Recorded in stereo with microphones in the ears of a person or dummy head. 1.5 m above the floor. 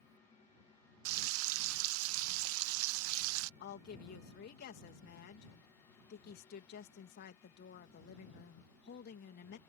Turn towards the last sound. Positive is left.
turn(degrees=60)  # may be behind; listen again after turning